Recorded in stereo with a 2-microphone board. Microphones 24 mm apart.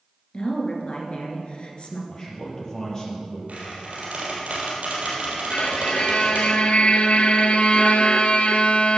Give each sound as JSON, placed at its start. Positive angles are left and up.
{"t": 0.3, "sound": "a woman speaking", "side_deg": 45, "distance_m": 2.0}
{"t": 2.1, "sound": "a man speaking", "side_deg": 25, "distance_m": 4.0}
{"t": 3.5, "sound": "a squeak", "side_deg": -65, "distance_m": 3.5}
{"t": 5.5, "sound": "a violin", "side_deg": 55, "distance_m": 0.7}